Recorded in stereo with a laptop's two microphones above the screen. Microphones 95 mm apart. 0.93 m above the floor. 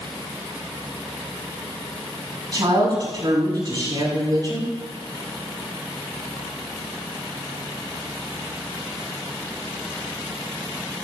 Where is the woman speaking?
40° right (ahead or behind), 6 m.